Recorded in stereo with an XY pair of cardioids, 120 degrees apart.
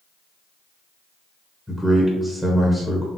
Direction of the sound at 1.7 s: Straight ahead.